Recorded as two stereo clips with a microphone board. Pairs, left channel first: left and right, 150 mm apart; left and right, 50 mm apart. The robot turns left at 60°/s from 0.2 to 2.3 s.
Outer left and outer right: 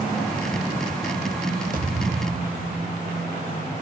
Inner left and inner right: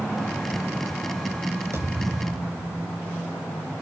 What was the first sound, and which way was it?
A thud, 65° right.